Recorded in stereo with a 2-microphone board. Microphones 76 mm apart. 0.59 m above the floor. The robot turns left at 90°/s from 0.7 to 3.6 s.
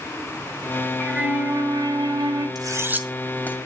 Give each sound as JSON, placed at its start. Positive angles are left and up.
{"t": 1.0, "sound": "a flute", "azimuth_deg": 5, "distance_m": 2.5}
{"t": 2.5, "sound": "cutlery clinking", "side_deg": -60, "distance_m": 1.7}